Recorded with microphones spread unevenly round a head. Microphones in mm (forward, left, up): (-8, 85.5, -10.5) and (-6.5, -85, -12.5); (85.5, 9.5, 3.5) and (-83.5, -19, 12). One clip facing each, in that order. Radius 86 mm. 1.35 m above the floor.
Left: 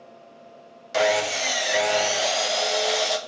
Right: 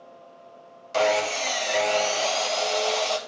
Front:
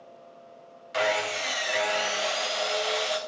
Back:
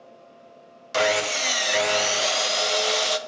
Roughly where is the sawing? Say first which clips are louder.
Left 1 dB, back 4 dB; behind.